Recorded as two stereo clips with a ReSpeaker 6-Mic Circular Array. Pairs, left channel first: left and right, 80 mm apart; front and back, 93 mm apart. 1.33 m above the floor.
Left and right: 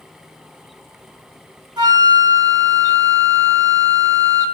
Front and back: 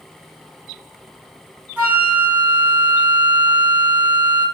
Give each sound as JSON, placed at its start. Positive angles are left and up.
{"t": 1.8, "sound": "a flute", "azimuth_deg": -110, "distance_m": 1.4}